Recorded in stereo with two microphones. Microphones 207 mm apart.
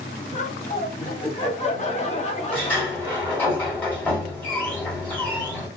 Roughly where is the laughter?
Left.